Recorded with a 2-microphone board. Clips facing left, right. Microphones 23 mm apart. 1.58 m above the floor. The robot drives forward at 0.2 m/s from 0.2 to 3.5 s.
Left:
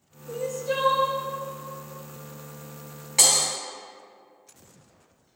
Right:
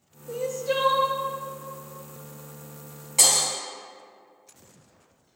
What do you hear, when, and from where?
0.3 s crying: 15° right (ahead or behind), 0.6 m; by 1.2 s 10° right (ahead or behind), 0.8 m
3.2 s breaking glass: 35° left (ahead or behind), 2 m